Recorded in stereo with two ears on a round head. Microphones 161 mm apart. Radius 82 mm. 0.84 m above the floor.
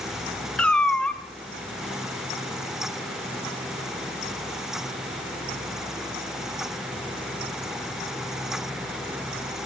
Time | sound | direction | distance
0.6 | a cat meowing | 5° left (ahead or behind) | 0.7 m